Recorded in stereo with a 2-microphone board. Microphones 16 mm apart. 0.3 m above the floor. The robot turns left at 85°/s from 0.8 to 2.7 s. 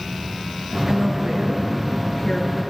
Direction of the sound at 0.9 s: 100° right.